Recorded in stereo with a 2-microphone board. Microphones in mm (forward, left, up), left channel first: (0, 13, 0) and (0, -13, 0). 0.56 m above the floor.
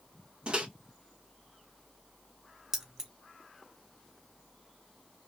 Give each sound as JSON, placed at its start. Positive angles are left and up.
{"t": 0.5, "sound": "a microwave", "side_deg": -40, "distance_m": 1.0}
{"t": 2.7, "sound": "keys jangling", "side_deg": -20, "distance_m": 0.8}